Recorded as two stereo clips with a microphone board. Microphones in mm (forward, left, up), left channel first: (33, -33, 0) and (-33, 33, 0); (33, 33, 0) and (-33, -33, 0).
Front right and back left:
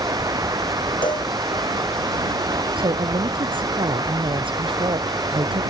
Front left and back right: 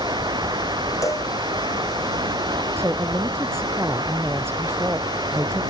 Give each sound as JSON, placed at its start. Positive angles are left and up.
{"t": 0.0, "sound": "running water", "azimuth_deg": -175}
{"t": 1.0, "sound": "a cowbell", "azimuth_deg": -10}
{"t": 2.8, "sound": "a woman speaking", "azimuth_deg": 160}